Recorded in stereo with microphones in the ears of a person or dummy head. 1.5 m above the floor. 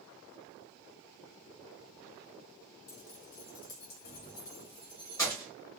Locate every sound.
2.9 s keys jangling: 70° left (ahead or behind), 1.3 m; by 5.5 s 10° left (ahead or behind), 1.2 m